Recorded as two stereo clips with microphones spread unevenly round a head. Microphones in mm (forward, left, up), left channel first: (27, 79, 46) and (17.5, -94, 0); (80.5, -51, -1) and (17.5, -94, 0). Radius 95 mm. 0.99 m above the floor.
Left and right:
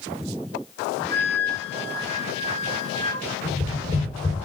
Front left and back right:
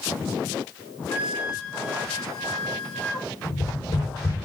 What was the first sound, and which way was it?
A flute, 25° left.